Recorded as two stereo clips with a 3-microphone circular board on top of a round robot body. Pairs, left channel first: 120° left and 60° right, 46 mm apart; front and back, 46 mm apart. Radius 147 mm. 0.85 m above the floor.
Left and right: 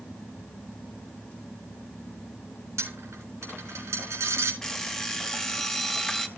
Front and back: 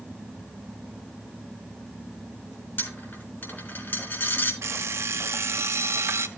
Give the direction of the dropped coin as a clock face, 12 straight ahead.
1 o'clock.